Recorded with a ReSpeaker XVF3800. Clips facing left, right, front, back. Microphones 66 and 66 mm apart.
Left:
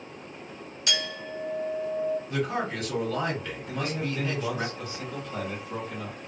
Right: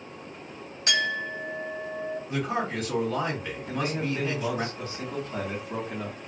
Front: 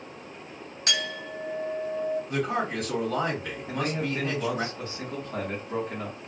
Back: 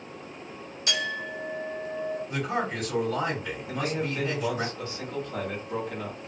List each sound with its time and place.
0.9 s a clink: 40° right, 1.3 m
2.3 s a man speaking: 20° right, 1.8 m
3.7 s a man speaking: 50° right, 1.4 m